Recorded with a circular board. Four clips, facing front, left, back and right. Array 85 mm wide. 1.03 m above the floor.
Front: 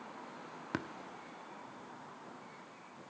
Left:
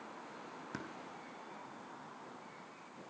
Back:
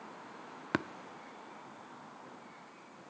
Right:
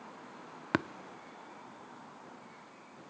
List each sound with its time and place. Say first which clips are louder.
0.7 s tapping: right 15 dB, back 5 dB; 115° right, 0.5 m